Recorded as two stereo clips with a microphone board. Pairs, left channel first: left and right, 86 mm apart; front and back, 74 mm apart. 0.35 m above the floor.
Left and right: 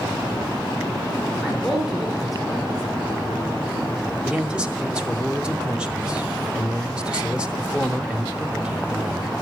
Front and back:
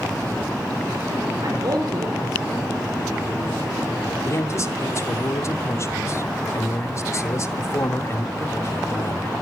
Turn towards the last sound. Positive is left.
turn(degrees=-15)